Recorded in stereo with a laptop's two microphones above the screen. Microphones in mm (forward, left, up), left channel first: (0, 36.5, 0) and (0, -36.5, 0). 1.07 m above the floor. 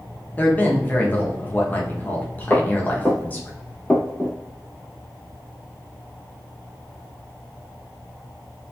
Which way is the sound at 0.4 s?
25° left (ahead or behind).